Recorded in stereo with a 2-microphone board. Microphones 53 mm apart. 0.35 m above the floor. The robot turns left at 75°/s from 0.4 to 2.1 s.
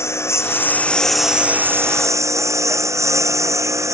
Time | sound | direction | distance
0.0 | a lawn mower | 55° left | ?